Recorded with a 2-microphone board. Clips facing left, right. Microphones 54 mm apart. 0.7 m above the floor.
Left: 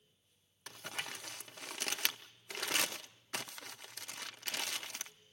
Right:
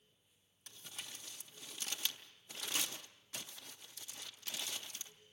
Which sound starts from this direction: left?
Crumpling, at 0.7 s.